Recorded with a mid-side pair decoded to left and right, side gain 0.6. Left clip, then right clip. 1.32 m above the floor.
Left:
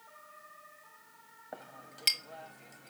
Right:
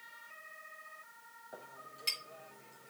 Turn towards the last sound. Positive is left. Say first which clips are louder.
# left 3 dB
turn(degrees=65)